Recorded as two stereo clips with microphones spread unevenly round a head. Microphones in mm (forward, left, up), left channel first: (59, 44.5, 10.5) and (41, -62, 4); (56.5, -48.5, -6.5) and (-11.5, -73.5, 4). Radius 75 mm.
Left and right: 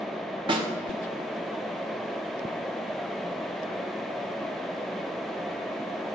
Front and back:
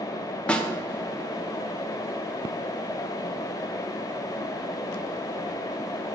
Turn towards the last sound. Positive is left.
turn(degrees=-60)